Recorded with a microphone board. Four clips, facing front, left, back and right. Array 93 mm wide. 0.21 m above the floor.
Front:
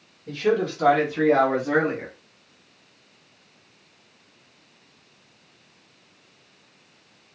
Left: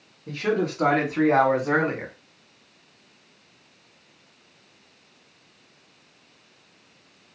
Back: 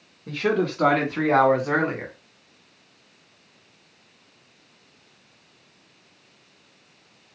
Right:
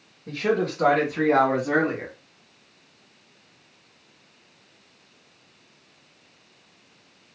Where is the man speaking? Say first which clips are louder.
Right 1 dB, front 1 dB; straight behind, 2.0 m; by 2.1 s 130° left, 1.7 m.